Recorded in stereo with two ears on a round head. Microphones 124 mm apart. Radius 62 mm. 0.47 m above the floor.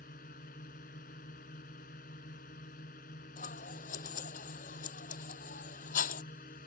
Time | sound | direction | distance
0.0 | a drone | 65° left (ahead or behind) | ?
3.4 | scissors | 60° left (ahead or behind) | ?